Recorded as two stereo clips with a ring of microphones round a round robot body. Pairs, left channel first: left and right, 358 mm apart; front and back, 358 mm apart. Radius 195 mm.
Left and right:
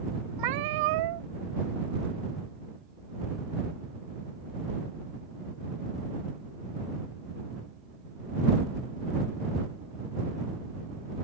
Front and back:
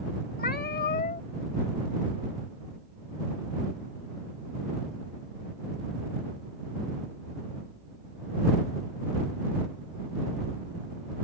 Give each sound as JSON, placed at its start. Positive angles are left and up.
{"t": 0.4, "sound": "a cat meowing", "azimuth_deg": -65}